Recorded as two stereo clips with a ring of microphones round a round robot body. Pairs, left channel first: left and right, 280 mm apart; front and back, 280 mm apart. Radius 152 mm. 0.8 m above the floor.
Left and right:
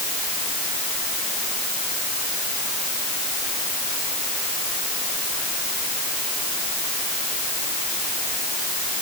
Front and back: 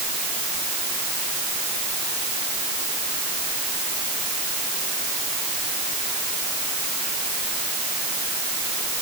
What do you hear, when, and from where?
Only background noise.